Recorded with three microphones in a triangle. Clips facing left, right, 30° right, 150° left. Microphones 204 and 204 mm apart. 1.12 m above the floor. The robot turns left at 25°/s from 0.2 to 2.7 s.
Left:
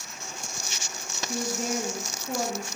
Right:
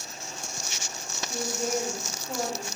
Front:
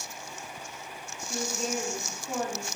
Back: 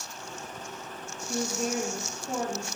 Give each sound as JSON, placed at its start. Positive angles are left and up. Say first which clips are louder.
{"t": 1.3, "sound": "a woman speaking", "louder": "even, back 3 dB", "azimuth_deg": 120, "distance_m": 1.0}